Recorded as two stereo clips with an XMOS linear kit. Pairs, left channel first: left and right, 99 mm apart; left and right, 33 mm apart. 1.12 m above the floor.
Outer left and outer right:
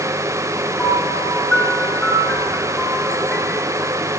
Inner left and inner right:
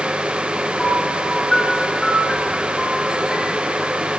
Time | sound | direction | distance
0.8 | a piano | 10° left (ahead or behind) | 8.5 m